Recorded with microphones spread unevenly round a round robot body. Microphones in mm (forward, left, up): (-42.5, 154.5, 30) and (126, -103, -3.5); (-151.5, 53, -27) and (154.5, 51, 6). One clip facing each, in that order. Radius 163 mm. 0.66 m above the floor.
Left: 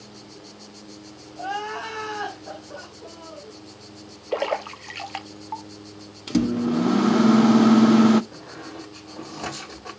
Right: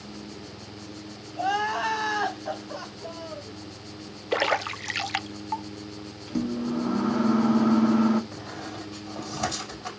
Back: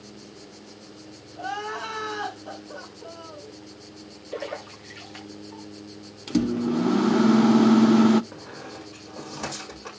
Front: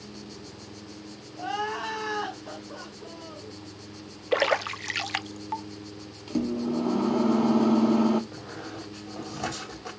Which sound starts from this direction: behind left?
A microwave, at 6.3 s.